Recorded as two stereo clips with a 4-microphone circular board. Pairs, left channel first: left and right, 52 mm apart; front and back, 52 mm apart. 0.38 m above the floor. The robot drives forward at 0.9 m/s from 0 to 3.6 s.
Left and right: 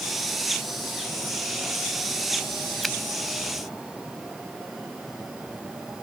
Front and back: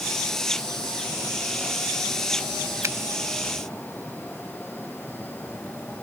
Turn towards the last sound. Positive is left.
turn(degrees=180)